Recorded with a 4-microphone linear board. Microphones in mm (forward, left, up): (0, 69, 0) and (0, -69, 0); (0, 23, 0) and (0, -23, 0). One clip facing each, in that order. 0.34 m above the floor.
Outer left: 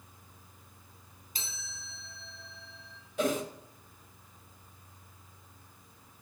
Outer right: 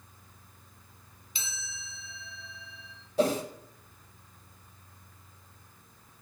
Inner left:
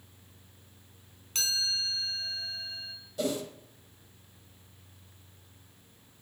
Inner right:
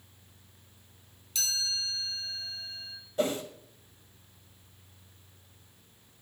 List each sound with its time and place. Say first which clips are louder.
1.4 s a chime: outer right 3 dB, inner left 2 dB; 45° left (ahead or behind), 3.5 m
3.2 s a whoosh: outer right 4 dB, inner right 2 dB; 35° right (ahead or behind), 2.0 m